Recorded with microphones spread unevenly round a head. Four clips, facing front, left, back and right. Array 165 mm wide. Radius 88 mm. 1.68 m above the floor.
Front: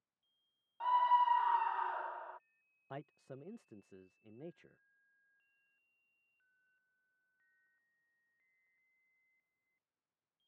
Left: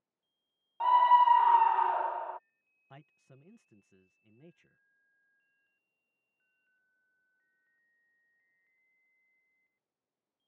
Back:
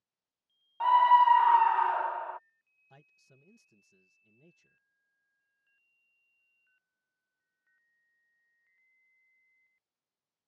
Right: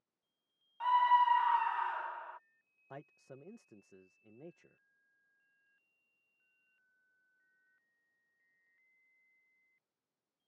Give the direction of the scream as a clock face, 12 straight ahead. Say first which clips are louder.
Left 6 dB, back 9 dB; 8 o'clock.